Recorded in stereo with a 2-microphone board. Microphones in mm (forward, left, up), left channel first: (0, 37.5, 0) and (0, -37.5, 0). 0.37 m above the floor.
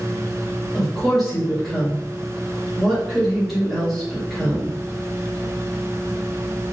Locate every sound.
0.7 s a woman speaking: centre (ahead or behind), 1.5 m